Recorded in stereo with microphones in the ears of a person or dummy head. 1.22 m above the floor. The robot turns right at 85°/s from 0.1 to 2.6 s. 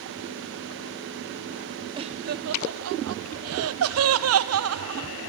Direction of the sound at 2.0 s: 20° right (ahead or behind).